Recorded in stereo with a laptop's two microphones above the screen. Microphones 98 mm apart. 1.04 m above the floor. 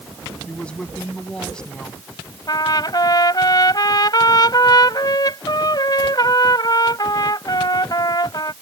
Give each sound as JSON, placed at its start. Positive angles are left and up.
{"t": 0.5, "sound": "a woman speaking", "side_deg": 15}
{"t": 2.5, "sound": "a trumpet", "side_deg": 45}